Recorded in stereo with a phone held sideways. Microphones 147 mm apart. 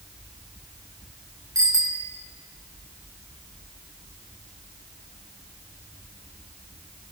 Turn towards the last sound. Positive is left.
turn(degrees=-25)  # may be behind; listen again after turning